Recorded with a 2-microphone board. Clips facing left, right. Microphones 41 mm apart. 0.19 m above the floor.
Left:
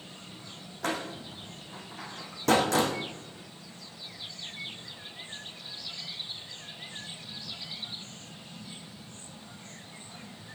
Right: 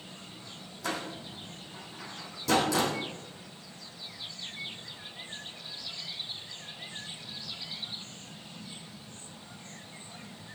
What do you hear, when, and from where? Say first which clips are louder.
0.8 s a door slam: left 2 dB; 55° left (ahead or behind), 5 m